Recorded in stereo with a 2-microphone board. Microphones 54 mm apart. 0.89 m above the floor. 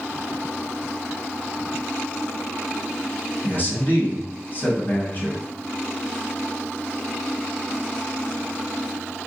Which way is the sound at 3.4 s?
40° left (ahead or behind).